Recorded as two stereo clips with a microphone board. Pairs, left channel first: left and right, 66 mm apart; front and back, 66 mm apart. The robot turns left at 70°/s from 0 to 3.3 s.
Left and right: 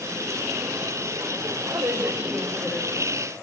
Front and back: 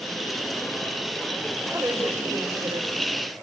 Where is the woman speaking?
120° right, 5 m; by 3.1 s 140° left, 5 m.